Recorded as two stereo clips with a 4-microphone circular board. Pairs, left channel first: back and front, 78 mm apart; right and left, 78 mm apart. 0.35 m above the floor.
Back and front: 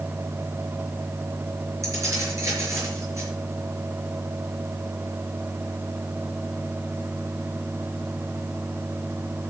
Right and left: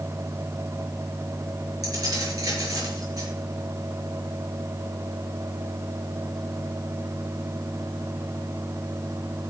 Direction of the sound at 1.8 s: 50° left.